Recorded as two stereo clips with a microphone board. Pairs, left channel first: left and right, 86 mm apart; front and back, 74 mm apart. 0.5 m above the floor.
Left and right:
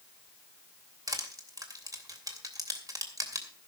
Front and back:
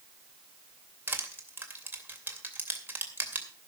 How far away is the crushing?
About 2.5 m.